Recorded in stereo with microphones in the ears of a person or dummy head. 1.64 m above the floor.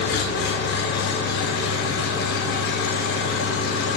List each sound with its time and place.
0.0 s an engine running: 65° left (ahead or behind), 0.9 m